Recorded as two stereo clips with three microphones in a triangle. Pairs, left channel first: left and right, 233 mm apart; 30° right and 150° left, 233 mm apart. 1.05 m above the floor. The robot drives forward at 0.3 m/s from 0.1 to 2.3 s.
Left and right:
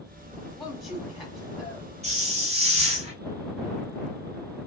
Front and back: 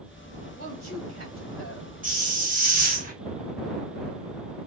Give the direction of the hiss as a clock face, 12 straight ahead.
5 o'clock.